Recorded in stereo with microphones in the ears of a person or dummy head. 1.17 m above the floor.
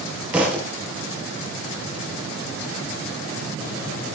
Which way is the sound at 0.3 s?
10° right (ahead or behind).